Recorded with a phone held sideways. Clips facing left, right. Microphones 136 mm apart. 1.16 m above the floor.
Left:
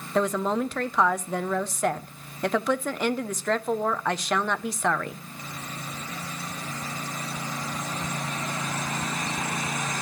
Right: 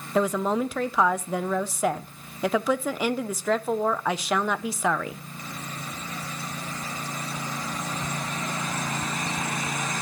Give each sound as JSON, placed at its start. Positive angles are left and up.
{"t": 0.1, "sound": "a woman speaking", "side_deg": -5, "distance_m": 0.5}